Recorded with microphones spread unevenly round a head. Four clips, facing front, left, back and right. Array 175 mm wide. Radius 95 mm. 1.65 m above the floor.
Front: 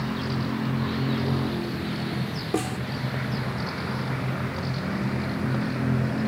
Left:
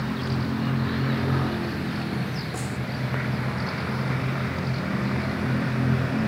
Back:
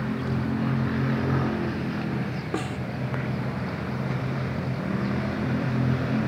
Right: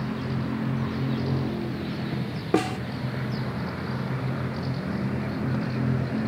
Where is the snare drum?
85° right.